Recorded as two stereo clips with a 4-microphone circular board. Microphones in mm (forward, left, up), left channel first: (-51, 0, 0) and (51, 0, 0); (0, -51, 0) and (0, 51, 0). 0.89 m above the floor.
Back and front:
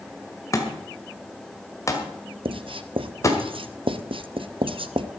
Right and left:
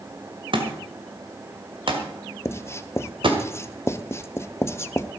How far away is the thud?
About 2 m.